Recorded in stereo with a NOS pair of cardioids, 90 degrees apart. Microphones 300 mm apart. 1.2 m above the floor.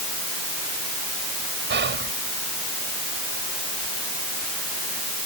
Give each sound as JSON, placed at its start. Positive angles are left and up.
{"t": 1.7, "sound": "whispering", "azimuth_deg": -40}